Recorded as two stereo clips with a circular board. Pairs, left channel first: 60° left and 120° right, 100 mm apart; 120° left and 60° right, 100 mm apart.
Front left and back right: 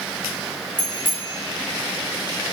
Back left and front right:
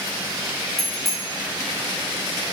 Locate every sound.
0.8 s a bicycle bell: 150° right, 6 m; by 2.5 s 145° right, 6.5 m